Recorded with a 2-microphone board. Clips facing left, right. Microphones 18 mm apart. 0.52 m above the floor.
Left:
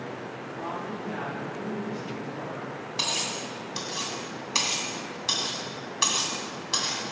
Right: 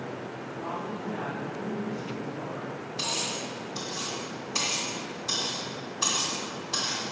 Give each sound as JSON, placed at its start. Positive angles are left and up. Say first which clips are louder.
{"t": 0.6, "sound": "a woman speaking", "louder": "left 1 dB", "side_deg": 70, "distance_m": 3.5}
{"t": 3.0, "sound": "cutlery clinking", "louder": "left 2 dB", "side_deg": 50, "distance_m": 2.5}